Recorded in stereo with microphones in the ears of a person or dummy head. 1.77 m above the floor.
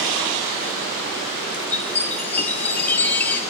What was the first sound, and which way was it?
A chime, 10° left (ahead or behind).